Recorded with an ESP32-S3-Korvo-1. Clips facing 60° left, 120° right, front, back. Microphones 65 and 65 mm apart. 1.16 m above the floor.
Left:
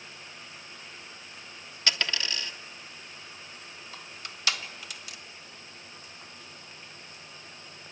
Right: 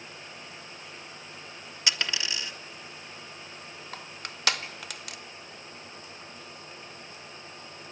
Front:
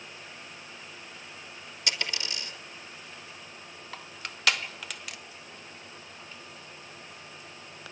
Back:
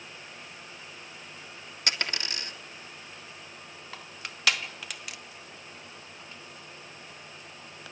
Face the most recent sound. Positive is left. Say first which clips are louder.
# right 4 dB, front 1 dB
turn(degrees=-90)